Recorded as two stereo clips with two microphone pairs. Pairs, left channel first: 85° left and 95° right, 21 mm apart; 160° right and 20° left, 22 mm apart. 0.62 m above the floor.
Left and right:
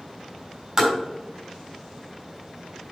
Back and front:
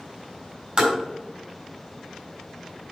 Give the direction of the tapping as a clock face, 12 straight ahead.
1 o'clock.